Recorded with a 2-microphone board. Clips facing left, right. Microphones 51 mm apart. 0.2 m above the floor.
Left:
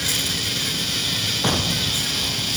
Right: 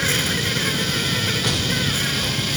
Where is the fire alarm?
I don't hear a fire alarm.